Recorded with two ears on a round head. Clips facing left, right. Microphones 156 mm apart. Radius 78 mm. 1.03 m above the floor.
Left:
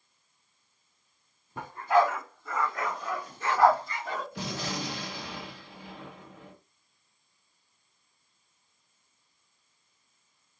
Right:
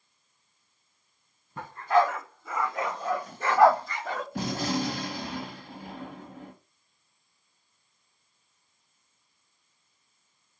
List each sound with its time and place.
1.6 s a dog barking: 10° left (ahead or behind), 2.0 m; by 4.2 s 60° right (ahead or behind), 1.6 m
4.3 s a gunshot: 45° right (ahead or behind), 1.1 m